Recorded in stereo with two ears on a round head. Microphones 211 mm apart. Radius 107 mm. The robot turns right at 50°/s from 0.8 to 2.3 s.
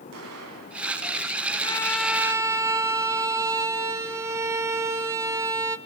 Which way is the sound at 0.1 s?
65° right (ahead or behind).